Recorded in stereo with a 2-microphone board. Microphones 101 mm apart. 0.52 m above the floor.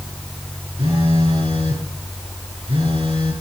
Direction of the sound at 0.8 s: 65° right (ahead or behind).